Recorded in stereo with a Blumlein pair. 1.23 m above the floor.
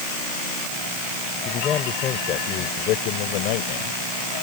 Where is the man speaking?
25° left; by 4.0 s 50° left.